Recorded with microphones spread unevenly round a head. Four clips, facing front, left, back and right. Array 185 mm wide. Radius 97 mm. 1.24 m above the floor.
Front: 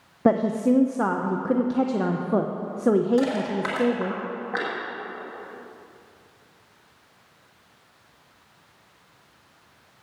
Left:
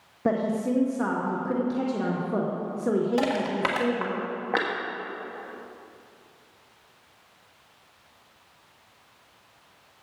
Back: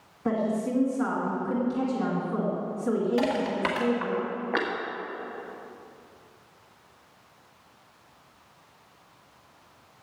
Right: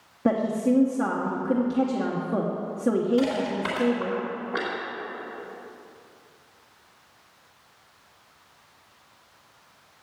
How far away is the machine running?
I don't hear a machine running.